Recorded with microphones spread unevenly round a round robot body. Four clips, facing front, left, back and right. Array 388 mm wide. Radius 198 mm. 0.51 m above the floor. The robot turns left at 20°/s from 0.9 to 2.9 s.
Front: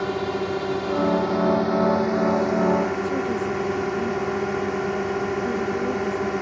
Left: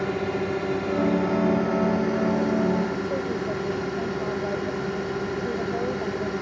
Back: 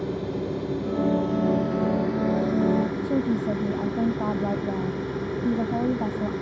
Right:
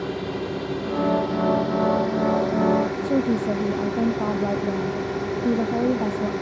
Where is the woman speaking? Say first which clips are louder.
Right 5 dB, even; 125° right.